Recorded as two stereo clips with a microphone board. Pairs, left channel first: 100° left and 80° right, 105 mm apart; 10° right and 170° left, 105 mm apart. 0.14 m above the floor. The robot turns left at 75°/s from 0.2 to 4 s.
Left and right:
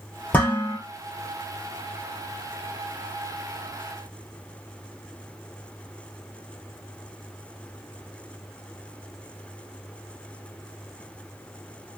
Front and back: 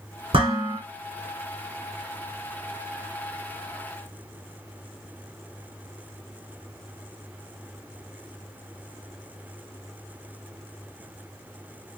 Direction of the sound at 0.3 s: 170° left.